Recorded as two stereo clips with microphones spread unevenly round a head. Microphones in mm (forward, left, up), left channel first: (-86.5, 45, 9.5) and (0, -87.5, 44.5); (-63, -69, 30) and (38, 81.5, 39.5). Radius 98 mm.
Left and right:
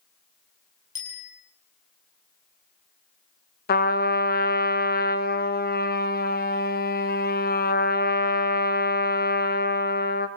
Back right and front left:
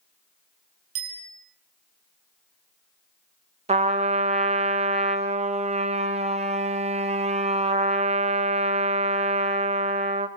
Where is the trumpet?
110° left, 1.8 m.